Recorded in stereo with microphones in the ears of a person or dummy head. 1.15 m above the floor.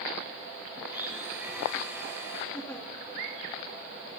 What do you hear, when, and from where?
0.8 s a blender: 10° right (ahead or behind), 3 m
2.5 s a giggle: 5° left (ahead or behind), 2.5 m